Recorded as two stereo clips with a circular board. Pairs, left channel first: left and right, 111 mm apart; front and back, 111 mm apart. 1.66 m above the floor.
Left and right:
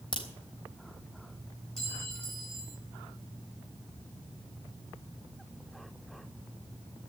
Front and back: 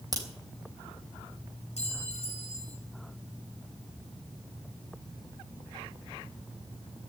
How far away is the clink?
About 4 m.